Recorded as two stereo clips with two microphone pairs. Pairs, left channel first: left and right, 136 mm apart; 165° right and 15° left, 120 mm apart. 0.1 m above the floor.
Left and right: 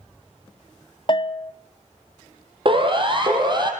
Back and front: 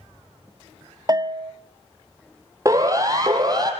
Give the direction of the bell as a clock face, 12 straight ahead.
10 o'clock.